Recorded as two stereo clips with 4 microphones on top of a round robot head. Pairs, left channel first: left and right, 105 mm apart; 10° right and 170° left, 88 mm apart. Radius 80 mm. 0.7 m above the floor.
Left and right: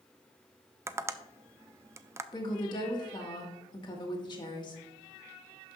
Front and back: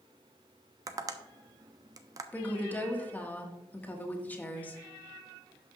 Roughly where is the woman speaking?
Ahead left.